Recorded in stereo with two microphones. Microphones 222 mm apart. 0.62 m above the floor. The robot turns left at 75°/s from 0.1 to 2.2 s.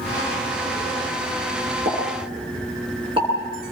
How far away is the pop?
About 8.5 m.